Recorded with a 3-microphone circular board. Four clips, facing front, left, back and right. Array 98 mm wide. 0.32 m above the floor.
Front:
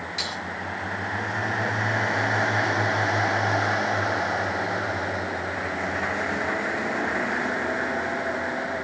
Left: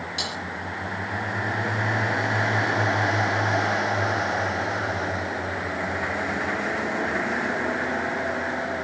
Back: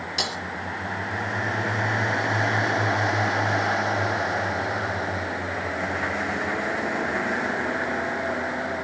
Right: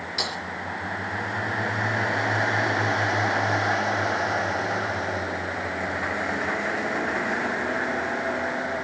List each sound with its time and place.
0.2 s breaking glass: 175° right, 4 m